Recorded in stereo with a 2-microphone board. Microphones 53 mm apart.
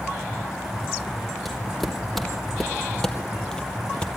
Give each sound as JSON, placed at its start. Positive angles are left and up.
{"t": 1.4, "sound": "footsteps", "side_deg": 0, "distance_m": 3.0}